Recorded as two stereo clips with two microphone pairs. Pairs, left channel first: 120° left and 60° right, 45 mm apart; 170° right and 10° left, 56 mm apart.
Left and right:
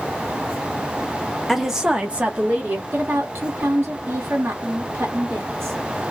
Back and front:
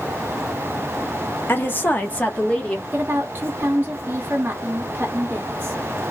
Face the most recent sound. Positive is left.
turn(degrees=-40)